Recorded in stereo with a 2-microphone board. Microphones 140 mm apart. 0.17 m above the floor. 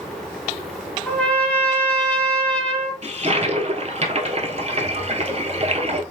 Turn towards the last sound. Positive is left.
turn(degrees=-50)  # may be behind; listen again after turning